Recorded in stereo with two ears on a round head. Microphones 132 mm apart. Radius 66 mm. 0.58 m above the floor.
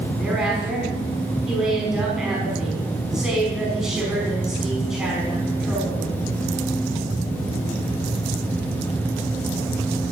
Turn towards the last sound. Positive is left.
turn(degrees=-5)  # may be behind; listen again after turning